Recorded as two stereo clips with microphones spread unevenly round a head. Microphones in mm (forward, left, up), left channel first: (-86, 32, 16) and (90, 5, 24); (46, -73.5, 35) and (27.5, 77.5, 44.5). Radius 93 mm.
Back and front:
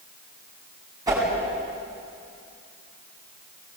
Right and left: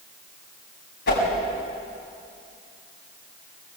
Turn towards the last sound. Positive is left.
turn(degrees=-80)